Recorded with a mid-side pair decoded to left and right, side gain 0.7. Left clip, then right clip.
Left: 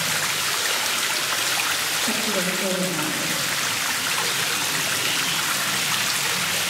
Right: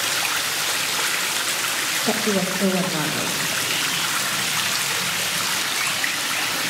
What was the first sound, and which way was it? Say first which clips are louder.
A woman speaking: right 1 dB; 50° right.